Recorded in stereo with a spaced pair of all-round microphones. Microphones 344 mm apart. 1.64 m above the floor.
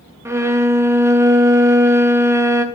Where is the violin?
10° right (ahead or behind), 0.6 m.